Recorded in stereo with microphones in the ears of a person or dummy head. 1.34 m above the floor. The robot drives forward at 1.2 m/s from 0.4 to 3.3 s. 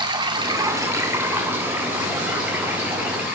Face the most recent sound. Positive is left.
turn(degrees=-10)  # may be behind; listen again after turning